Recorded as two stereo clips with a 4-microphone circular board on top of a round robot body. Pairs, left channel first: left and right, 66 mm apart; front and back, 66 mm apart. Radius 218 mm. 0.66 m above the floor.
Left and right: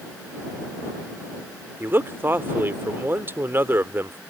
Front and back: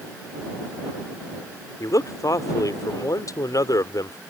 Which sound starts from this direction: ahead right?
A man speaking, at 1.8 s.